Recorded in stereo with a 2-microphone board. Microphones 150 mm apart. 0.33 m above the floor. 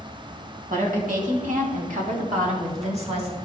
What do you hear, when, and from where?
0.7 s a woman speaking: 60° right (ahead or behind), 2.5 m; by 3.4 s 40° right (ahead or behind), 2.5 m